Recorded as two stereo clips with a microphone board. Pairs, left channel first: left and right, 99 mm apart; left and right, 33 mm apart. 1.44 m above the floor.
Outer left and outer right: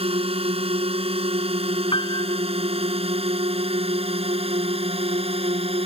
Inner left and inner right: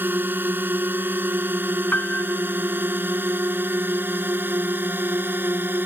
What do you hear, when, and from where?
0.0 s a drone: 80° right; by 5.9 s 85° right
1.9 s a piano: 65° left (ahead or behind)